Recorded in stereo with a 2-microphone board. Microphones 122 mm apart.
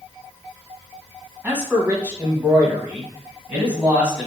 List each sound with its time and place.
1.4 s a man speaking: 15° right (ahead or behind), 1.4 m; by 4.3 s 10° right (ahead or behind), 1.4 m